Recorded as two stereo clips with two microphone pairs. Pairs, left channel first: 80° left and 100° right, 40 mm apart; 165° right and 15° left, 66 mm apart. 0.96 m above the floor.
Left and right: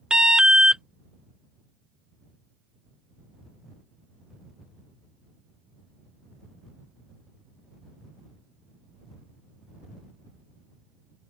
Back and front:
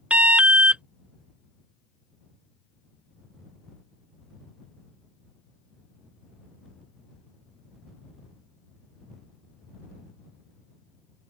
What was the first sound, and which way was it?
An alarm, 40° right.